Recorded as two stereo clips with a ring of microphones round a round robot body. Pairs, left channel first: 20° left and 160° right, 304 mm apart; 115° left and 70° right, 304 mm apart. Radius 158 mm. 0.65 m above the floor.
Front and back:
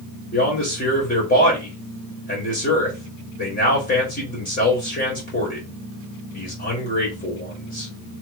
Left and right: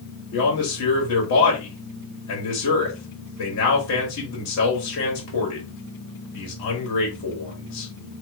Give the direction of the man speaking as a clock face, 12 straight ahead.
9 o'clock.